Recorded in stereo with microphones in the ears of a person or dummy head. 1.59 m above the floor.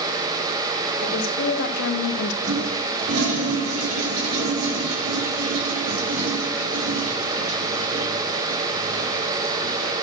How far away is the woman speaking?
About 2.5 m.